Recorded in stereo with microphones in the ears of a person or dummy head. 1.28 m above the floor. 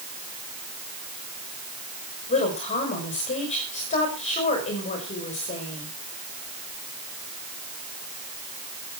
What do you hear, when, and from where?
2.3 s a woman speaking: 35° left (ahead or behind), 5 m